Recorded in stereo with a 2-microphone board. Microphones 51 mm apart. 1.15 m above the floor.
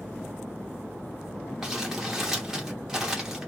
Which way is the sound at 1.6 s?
10° right (ahead or behind).